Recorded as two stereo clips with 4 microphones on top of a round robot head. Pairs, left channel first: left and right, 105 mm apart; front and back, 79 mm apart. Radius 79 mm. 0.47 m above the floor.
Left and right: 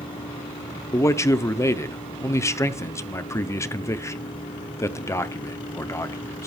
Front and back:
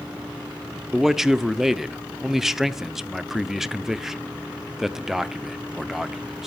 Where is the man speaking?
100° left, 0.8 m.